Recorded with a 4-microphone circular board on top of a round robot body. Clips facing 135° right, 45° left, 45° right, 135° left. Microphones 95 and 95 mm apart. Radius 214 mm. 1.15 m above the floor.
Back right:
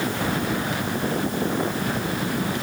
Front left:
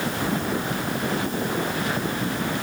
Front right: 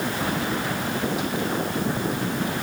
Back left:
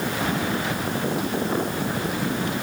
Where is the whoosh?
No whoosh in this recording.